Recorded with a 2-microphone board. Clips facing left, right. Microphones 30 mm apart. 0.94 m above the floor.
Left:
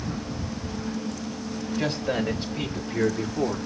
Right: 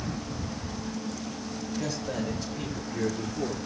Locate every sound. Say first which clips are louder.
1.8 s a man speaking: left 6 dB; 55° left (ahead or behind), 4 m; by 3.6 s 50° left (ahead or behind), 2 m